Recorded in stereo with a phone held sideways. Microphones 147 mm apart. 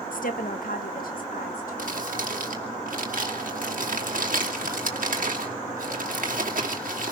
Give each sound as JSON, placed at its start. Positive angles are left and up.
{"t": 0.1, "sound": "a woman speaking", "side_deg": 75, "distance_m": 1.0}
{"t": 1.8, "sound": "crumpling", "side_deg": -75, "distance_m": 2.5}